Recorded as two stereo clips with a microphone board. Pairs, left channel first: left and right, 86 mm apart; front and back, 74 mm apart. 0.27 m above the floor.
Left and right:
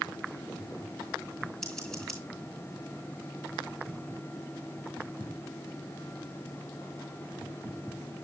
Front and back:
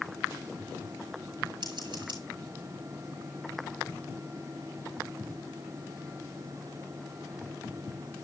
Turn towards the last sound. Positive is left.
turn(degrees=170)